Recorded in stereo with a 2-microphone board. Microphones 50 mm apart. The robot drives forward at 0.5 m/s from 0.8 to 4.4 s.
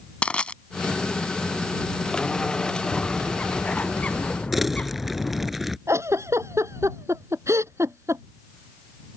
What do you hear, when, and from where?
0.2 s crushing: 25° left (ahead or behind)
2.9 s a bird: 25° left (ahead or behind)
4.5 s crumpling: 5° right (ahead or behind)
5.9 s a giggle: 70° right (ahead or behind)